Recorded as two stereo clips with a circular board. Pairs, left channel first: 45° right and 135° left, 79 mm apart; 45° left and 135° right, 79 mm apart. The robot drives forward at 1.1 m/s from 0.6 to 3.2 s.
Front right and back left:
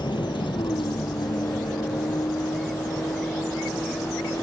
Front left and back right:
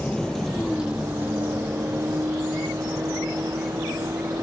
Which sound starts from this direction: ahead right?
A vehicle, at 0.0 s.